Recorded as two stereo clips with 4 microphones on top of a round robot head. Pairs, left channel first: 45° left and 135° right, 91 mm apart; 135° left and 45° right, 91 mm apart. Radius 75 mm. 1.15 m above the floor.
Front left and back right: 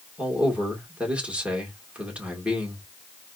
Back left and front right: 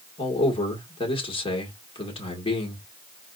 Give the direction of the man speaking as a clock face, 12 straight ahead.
7 o'clock.